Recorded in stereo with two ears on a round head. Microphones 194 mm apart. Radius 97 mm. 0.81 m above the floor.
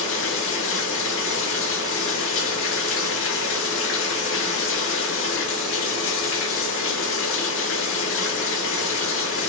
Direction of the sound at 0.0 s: 60° left (ahead or behind).